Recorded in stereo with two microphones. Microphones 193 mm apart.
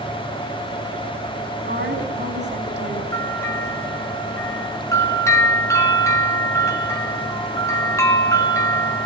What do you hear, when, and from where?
1.7 s a woman speaking: 65° right (ahead or behind), 3.5 m
3.1 s a bell: 15° left (ahead or behind), 4 m